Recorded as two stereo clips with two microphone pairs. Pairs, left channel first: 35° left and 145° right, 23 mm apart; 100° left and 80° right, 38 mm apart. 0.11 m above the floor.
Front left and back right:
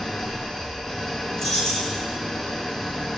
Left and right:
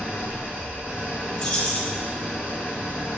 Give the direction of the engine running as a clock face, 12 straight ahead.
1 o'clock.